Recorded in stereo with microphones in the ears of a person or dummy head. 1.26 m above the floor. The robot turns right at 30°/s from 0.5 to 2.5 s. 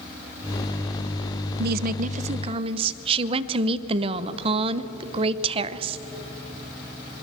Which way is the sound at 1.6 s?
60° right (ahead or behind).